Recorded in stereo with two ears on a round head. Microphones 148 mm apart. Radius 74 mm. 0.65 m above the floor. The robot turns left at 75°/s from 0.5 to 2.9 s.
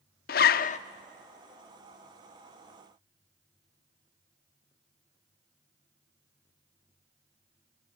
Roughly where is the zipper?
Left.